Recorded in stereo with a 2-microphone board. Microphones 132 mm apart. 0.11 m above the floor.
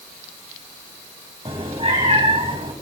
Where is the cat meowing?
45° right (ahead or behind), 2 m.